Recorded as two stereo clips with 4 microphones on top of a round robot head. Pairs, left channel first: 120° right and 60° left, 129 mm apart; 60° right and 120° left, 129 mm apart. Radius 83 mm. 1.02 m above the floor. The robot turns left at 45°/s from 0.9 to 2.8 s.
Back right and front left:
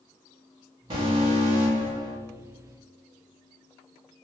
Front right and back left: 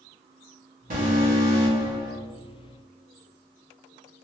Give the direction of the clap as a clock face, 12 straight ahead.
No clap in this recording.